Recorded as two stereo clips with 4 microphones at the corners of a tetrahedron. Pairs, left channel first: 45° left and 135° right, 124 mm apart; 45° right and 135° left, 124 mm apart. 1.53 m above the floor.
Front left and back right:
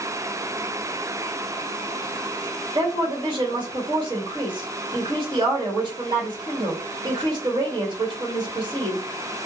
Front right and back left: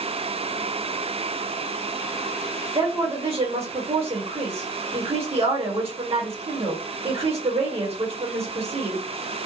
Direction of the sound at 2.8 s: 175° left.